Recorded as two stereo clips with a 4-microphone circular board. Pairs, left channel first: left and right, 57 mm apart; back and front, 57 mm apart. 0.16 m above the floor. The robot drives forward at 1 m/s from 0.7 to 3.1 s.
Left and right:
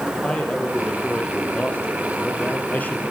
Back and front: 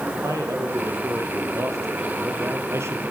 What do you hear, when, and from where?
0.2 s a man speaking: 20° left, 5 m; by 3.1 s 35° left, 3 m